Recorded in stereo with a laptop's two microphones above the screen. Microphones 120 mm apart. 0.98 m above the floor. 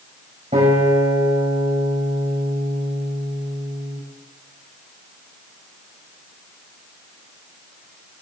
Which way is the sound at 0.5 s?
80° right.